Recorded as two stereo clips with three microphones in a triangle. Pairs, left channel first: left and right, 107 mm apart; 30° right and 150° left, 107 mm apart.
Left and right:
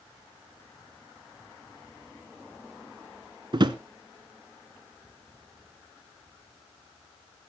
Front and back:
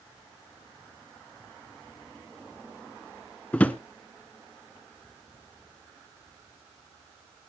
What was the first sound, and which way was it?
A drawer, 100° right.